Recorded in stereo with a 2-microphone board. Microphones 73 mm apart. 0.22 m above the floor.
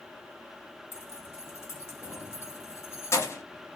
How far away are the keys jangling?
About 0.8 m.